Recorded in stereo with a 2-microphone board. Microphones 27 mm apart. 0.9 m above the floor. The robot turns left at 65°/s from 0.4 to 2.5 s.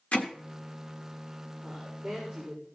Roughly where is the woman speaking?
Ahead right.